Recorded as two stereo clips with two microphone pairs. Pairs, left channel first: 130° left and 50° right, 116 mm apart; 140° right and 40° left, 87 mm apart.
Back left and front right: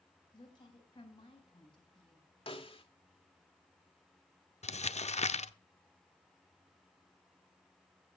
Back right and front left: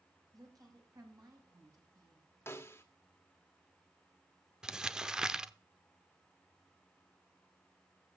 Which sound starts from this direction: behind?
A snare drum, at 2.5 s.